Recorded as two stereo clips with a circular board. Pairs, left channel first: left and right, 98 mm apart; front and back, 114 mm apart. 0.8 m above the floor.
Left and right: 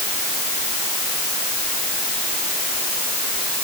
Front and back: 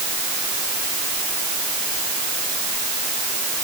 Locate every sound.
Only background noise.